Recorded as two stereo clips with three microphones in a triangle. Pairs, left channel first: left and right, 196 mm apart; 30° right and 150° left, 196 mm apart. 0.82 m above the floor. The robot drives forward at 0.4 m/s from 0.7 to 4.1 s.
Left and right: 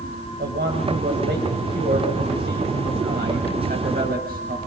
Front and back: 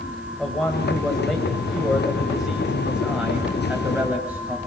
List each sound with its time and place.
0.4 s a man speaking: 115° right, 5.5 m; by 4.6 s 130° right, 6 m